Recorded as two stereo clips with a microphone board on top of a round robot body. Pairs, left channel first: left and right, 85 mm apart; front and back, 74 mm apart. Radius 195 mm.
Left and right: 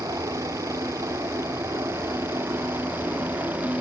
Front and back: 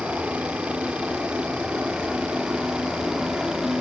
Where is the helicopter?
115° right; by 3.8 s 110° right.